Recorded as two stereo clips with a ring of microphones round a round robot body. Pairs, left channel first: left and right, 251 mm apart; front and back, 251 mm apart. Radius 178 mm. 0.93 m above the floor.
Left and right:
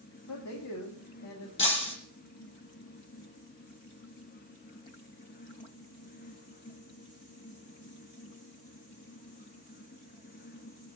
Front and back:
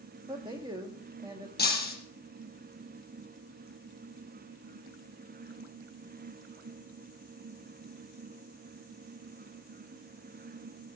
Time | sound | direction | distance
0.3 | a man speaking | 105° left | 2.0 m
1.6 | breaking glass | 50° left | 5.5 m